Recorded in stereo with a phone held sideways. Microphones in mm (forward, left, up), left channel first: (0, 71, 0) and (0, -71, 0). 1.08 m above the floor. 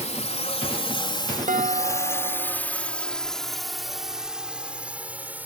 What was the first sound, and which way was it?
A drone, 55° left (ahead or behind).